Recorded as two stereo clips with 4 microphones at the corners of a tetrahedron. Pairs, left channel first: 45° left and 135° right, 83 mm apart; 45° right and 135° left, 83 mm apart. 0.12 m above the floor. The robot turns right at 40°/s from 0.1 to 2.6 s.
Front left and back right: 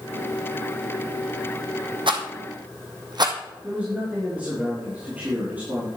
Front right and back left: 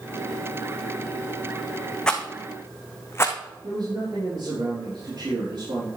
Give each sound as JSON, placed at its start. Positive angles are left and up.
{"t": 2.1, "sound": "a rattle", "azimuth_deg": -125, "distance_m": 1.6}
{"t": 3.6, "sound": "a man speaking", "azimuth_deg": 155, "distance_m": 4.0}